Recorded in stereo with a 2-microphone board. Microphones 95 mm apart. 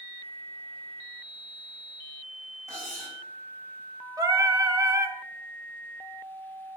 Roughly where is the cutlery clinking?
Right.